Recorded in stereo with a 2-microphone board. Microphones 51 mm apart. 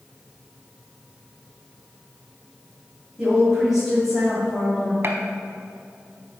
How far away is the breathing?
No breathing in this recording.